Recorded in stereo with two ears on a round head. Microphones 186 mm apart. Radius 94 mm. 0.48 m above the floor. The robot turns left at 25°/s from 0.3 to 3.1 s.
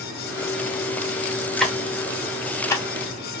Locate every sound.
1.6 s ticking: centre (ahead or behind), 0.7 m; by 2.9 s 15° left (ahead or behind), 0.7 m